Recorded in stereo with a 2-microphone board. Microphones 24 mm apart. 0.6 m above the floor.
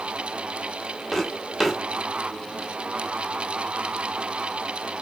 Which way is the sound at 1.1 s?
5° left (ahead or behind).